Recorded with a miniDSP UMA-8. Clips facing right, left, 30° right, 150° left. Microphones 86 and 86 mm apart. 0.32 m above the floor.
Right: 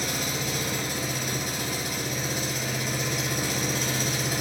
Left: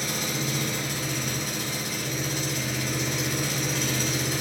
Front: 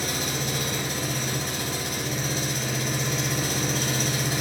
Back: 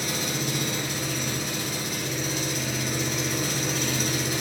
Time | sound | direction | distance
0.0 | an engine running | 70° right | 2 m